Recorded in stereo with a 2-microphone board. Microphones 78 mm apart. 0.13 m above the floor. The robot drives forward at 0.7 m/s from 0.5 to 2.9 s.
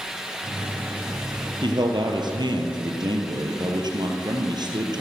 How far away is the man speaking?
About 3 m.